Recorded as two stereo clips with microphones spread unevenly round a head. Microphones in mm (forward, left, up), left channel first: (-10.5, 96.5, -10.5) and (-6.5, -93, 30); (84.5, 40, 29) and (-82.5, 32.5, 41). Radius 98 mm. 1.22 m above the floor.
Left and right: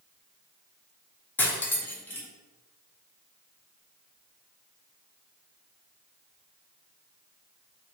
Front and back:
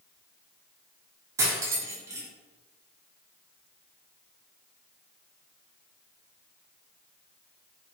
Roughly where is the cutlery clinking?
Behind.